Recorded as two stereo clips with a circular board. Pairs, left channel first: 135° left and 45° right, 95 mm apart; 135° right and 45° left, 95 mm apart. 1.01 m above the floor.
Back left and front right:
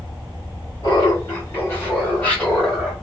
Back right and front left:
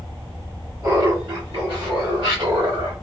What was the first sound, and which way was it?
Laughter, 95° left.